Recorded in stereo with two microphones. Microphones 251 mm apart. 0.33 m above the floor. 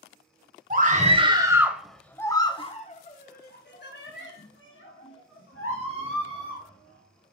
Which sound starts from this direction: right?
A scream, at 0.7 s.